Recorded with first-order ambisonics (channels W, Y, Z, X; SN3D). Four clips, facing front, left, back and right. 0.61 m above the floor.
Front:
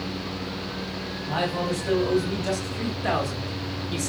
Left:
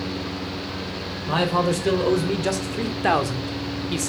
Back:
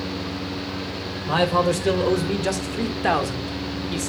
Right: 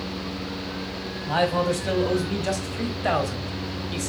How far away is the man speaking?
About 2.5 m.